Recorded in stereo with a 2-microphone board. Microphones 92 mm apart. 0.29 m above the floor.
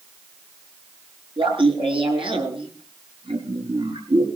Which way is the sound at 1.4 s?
70° right (ahead or behind).